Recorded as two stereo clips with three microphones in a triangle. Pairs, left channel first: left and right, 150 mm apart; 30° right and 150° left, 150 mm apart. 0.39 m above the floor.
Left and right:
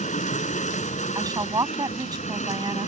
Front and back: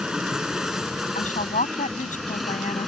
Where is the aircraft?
65° left; by 2.9 s 60° left.